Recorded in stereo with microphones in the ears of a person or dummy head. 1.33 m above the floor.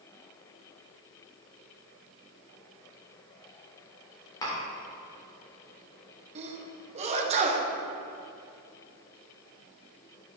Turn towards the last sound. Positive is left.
turn(degrees=-35)  # may be behind; listen again after turning